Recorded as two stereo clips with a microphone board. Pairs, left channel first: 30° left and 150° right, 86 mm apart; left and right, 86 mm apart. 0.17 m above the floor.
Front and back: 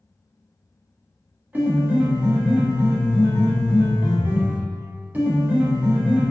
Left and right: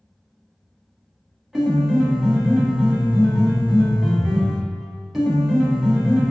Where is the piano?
170° right, 0.7 m.